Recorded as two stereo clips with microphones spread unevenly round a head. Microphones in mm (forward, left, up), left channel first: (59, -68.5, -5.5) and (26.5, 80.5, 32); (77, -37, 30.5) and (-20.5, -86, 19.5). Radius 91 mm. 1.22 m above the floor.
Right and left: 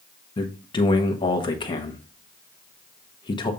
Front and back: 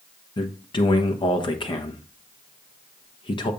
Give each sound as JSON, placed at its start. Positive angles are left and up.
{"t": 0.4, "sound": "a man speaking", "azimuth_deg": -20, "distance_m": 1.0}